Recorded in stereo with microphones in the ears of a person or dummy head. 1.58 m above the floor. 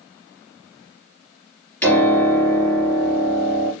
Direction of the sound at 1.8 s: 10° left (ahead or behind).